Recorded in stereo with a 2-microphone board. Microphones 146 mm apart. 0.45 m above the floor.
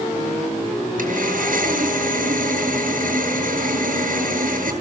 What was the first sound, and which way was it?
Sawing, 65° right (ahead or behind).